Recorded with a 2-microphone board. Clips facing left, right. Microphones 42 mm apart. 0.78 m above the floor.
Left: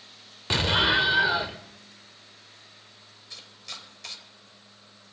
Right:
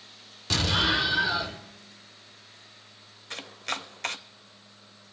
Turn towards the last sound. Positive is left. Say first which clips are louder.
# right 10 dB
turn(degrees=-55)  # may be behind; listen again after turning